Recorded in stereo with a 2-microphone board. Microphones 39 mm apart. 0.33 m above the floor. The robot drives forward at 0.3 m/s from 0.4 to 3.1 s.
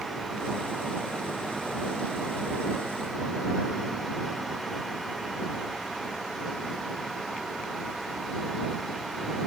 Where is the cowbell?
No cowbell in this recording.